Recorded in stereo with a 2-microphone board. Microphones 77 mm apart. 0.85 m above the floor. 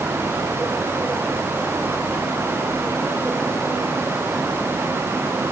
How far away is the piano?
No piano in this recording.